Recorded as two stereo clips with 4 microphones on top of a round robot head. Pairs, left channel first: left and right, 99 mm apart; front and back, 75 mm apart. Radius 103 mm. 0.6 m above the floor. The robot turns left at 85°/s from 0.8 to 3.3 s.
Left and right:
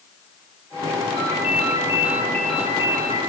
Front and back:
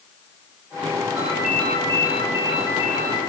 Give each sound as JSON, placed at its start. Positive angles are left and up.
{"t": 1.2, "sound": "a ringtone", "azimuth_deg": 115, "distance_m": 9.5}